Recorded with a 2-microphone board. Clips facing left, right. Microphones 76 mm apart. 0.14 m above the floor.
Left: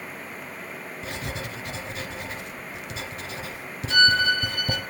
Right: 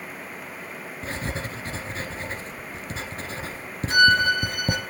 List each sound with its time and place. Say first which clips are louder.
1.0 s writing: right 3 dB; 35° right (ahead or behind), 1.6 m
3.9 s a violin: right 2 dB; 15° right (ahead or behind), 2.5 m